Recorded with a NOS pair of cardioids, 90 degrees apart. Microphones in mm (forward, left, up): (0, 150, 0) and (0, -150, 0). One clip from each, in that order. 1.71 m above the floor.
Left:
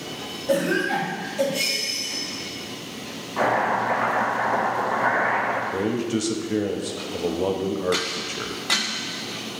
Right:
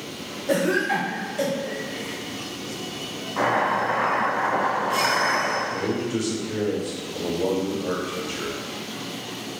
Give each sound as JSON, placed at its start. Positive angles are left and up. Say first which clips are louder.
{"t": 0.5, "sound": "a cough", "louder": "even", "azimuth_deg": -5, "distance_m": 0.6}
{"t": 3.4, "sound": "chopping", "louder": "even", "azimuth_deg": 5, "distance_m": 1.4}
{"t": 5.7, "sound": "a man speaking", "louder": "left 1 dB", "azimuth_deg": 35, "distance_m": 0.5}